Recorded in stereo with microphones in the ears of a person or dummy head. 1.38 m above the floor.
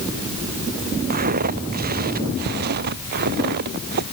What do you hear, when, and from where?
1.1 s footsteps: 50° right (ahead or behind)